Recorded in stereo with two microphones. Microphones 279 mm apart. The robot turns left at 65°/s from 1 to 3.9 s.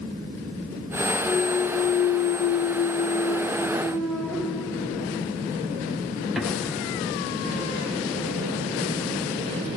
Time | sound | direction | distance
1.2 | a clunk | 10° left (ahead or behind) | 0.9 m